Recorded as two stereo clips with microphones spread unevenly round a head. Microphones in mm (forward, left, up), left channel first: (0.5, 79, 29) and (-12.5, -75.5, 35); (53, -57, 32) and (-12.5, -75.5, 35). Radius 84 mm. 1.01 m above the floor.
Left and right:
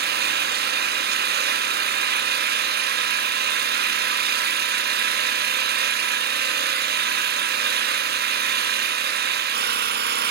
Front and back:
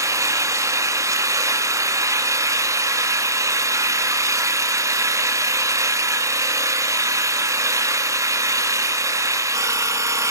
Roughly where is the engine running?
Behind right.